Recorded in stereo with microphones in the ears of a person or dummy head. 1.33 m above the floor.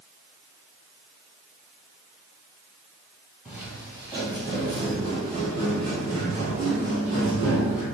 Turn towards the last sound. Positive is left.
turn(degrees=-45)  # may be behind; listen again after turning